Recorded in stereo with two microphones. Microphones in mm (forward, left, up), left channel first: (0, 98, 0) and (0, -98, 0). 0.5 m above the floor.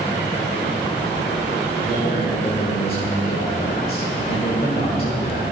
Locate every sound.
1.9 s a man speaking: 50° left (ahead or behind), 1.7 m